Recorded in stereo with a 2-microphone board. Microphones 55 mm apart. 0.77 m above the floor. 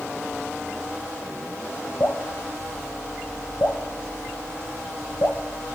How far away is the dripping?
About 1.0 m.